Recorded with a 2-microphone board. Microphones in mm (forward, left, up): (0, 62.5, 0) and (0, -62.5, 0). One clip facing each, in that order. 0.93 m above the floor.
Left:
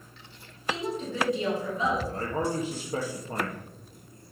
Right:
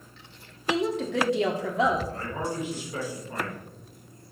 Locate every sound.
0.7 s a woman speaking: 75° right (ahead or behind), 1.8 m
2.1 s a man speaking: 35° left (ahead or behind), 1.5 m